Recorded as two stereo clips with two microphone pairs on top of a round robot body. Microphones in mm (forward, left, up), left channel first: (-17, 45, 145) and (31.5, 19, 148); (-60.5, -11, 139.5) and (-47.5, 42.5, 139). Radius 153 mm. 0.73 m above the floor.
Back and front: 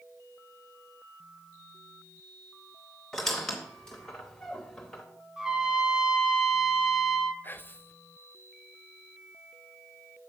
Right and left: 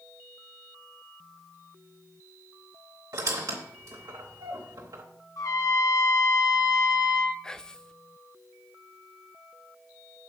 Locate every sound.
3.1 s a squeak: 70° left, 0.6 m
5.4 s a trumpet: 105° right, 1.3 m
7.4 s whispering: straight behind, 0.9 m